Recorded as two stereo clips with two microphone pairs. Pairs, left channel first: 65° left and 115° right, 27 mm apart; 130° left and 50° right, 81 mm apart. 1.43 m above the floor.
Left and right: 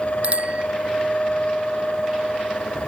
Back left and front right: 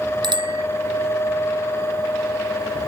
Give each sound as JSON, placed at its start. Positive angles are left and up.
{"t": 0.2, "sound": "a bicycle bell", "azimuth_deg": -75}